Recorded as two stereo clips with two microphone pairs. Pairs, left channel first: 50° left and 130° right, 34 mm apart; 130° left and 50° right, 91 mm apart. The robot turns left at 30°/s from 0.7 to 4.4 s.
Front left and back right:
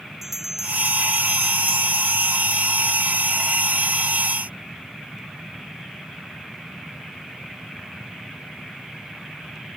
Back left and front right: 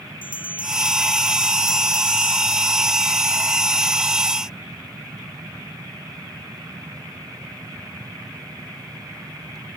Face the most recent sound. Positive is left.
turn(degrees=40)